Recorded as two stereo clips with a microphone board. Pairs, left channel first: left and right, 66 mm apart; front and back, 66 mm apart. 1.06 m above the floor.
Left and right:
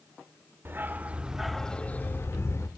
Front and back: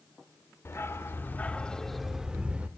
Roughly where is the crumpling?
No crumpling in this recording.